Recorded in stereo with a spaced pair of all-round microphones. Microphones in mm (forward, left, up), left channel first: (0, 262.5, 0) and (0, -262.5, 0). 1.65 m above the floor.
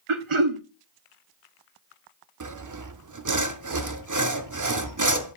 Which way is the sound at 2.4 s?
35° right (ahead or behind).